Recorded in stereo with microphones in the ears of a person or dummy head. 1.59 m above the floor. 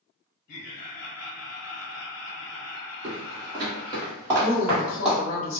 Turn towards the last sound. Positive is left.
turn(degrees=40)  # may be behind; listen again after turning